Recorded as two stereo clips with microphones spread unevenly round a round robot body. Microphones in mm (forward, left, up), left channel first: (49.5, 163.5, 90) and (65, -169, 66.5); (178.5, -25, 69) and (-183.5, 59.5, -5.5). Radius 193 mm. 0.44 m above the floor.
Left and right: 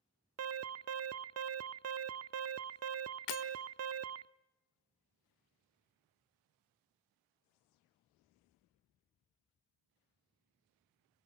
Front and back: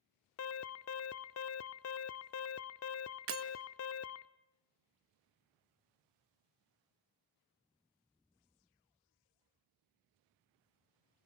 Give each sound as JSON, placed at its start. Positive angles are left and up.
{"t": 0.4, "sound": "an alarm", "azimuth_deg": -65, "distance_m": 0.5}
{"t": 3.3, "sound": "breaking glass", "azimuth_deg": 120, "distance_m": 1.2}